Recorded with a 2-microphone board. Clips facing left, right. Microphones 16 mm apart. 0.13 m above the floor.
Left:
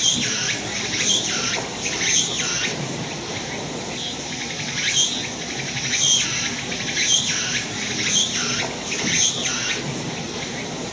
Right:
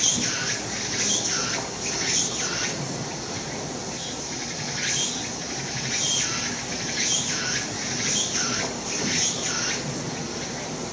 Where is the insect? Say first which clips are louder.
Left 4 dB; 40° left (ahead or behind), 1.1 m.